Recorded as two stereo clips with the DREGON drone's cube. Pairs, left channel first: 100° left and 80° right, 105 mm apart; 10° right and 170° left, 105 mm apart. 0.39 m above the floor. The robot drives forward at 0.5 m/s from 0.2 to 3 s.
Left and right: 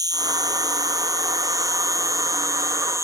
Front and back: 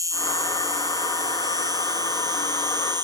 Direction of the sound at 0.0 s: 130° right.